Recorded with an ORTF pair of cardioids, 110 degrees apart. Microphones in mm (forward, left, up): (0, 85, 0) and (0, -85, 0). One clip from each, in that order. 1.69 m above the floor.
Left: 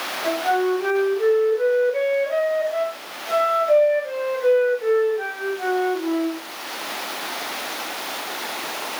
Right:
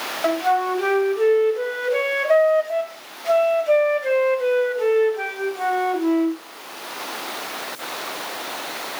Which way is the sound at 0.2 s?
70° right.